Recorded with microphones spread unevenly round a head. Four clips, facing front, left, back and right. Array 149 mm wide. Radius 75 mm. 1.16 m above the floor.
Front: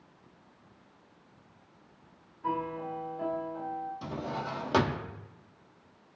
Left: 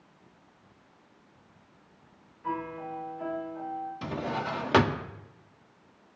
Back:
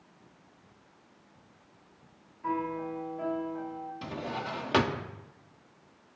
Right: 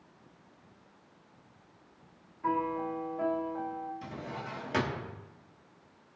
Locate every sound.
2.4 s a piano: 95° right, 2.5 m
4.0 s a drawer: 85° left, 0.7 m